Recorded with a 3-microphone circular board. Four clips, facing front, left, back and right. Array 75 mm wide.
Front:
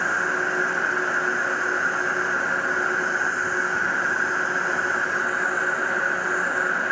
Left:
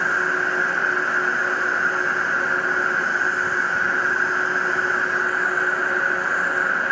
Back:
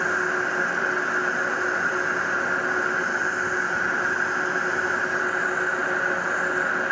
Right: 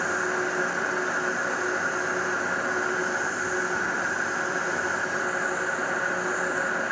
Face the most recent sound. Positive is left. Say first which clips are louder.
# left 5 dB, front 1 dB
turn(degrees=90)